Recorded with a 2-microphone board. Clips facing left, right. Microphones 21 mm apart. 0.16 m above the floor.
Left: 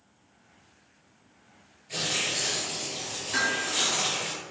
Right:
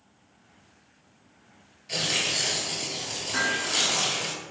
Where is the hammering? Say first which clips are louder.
Even; 25° left (ahead or behind), 1.5 m.